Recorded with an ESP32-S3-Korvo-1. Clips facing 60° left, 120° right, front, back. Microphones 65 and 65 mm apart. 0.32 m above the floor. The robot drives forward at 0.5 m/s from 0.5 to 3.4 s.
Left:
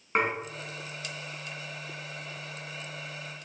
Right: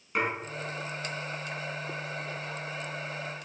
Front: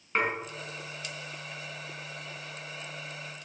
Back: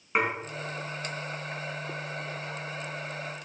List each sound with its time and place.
0.1 s dishes clattering: 105° left, 2 m